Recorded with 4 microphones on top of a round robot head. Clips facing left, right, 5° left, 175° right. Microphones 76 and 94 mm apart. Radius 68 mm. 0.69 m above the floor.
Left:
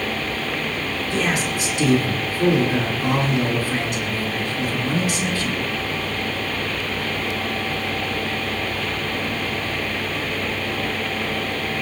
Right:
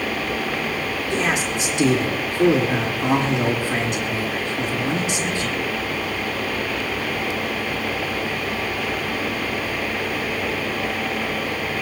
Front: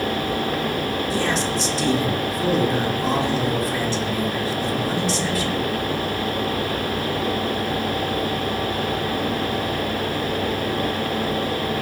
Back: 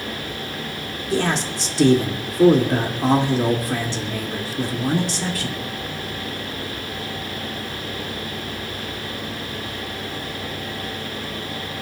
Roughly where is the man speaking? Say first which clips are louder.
Even, back 4 dB; behind right.